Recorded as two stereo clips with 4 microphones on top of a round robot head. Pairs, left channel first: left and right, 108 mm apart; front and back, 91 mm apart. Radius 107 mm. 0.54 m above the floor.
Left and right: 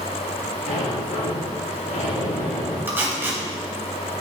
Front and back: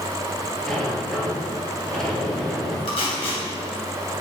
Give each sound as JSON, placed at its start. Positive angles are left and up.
{"t": 0.7, "sound": "a sliding door", "azimuth_deg": 85, "distance_m": 3.5}
{"t": 2.9, "sound": "tape being pulled", "azimuth_deg": -20, "distance_m": 3.0}